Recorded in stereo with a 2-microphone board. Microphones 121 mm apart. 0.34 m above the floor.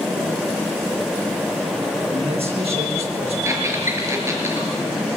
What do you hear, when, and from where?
2.1 s a man speaking: 55° right (ahead or behind), 7 m; by 3.4 s 60° right (ahead or behind), 7.5 m
3.5 s a squeak: 25° right (ahead or behind), 4.5 m